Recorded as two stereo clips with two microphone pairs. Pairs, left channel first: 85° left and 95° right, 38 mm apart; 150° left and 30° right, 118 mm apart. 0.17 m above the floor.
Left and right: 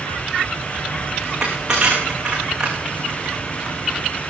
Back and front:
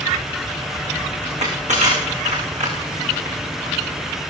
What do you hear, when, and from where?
1.2 s crushing: 25° right, 10 m